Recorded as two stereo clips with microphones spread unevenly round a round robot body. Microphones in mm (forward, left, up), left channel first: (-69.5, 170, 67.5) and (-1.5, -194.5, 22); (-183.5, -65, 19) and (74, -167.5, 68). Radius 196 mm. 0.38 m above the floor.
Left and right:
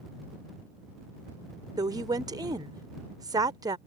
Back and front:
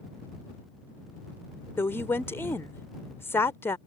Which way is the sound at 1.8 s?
140° right.